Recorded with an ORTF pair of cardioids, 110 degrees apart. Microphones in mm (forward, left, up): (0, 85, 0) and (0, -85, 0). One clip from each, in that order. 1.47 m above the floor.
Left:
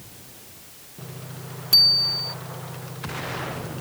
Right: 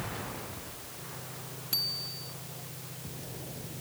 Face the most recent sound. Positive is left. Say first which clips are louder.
# left 16 dB
turn(degrees=45)